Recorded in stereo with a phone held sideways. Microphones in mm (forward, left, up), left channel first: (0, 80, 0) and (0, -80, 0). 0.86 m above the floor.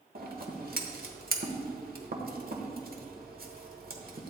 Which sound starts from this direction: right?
Scissors, at 0.1 s.